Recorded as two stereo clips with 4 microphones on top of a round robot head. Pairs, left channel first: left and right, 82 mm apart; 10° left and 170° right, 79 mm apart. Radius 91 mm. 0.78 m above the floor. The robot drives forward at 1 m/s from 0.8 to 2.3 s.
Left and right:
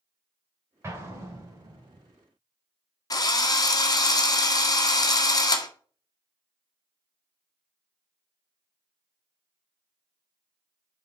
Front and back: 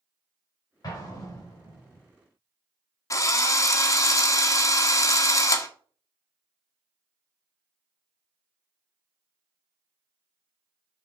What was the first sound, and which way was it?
An explosion, 30° right.